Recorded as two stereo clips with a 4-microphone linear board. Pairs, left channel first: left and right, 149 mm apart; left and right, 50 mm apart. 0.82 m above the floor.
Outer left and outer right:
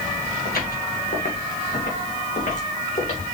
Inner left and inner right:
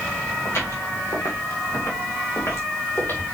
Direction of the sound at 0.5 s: 80° left.